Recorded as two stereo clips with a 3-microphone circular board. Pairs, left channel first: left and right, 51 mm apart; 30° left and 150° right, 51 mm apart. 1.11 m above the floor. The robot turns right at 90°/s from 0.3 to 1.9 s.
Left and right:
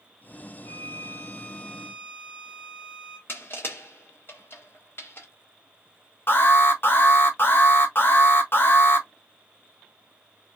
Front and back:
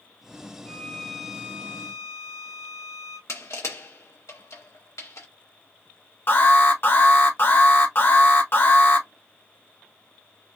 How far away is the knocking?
I don't hear knocking.